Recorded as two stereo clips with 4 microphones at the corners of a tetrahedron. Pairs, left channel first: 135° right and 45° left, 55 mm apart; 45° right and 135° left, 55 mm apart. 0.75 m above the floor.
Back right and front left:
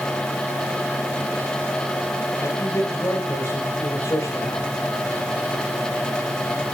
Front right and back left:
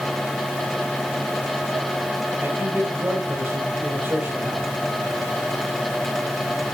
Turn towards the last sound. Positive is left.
turn(degrees=-170)